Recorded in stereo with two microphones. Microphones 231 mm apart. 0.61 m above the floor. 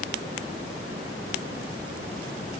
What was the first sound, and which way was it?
Only background noise.